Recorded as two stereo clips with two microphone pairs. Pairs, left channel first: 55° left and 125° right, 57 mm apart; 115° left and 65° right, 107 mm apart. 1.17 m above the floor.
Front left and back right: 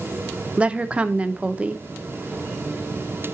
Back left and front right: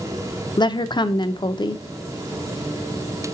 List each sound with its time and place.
0.6 s a woman speaking: 165° left, 0.5 m